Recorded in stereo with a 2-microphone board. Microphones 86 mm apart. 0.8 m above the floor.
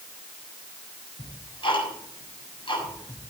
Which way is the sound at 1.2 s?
70° left (ahead or behind).